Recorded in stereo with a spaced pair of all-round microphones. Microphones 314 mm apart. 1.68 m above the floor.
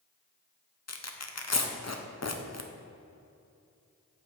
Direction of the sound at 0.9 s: 55° left (ahead or behind).